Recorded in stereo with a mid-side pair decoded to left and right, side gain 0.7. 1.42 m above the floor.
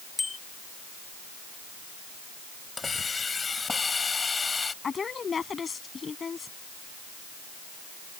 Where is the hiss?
20° left.